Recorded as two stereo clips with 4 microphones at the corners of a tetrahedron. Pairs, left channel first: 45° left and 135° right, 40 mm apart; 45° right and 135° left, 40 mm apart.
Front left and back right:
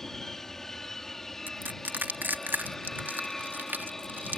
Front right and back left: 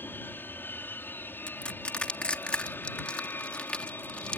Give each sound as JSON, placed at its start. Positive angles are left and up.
{"t": 0.0, "sound": "an aircraft", "azimuth_deg": -35}
{"t": 1.5, "sound": "crushing", "azimuth_deg": -105}